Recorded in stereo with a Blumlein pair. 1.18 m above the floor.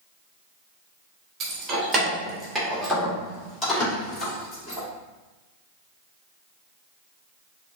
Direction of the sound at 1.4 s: 30° right.